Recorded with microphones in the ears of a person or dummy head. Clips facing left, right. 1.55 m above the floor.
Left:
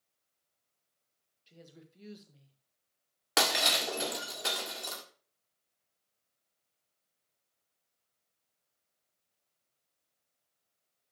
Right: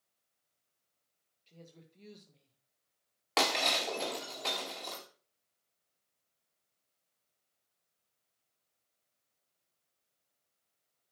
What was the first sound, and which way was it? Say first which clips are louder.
A woman speaking: left 1 dB; 10° left (ahead or behind).